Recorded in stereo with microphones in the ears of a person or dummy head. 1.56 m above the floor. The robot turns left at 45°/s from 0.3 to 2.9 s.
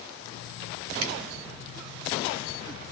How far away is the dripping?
About 0.8 m.